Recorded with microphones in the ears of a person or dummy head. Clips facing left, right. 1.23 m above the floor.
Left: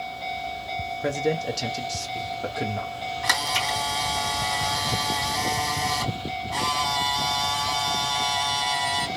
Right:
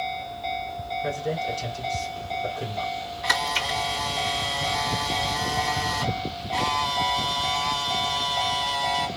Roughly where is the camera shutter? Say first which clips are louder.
Right 1 dB; left.